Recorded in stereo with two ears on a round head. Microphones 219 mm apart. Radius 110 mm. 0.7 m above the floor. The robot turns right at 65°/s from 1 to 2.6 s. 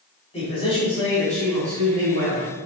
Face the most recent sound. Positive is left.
turn(degrees=-100)